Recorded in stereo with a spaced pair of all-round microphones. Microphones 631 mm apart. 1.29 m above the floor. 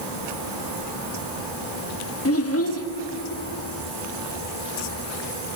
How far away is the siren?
No siren in this recording.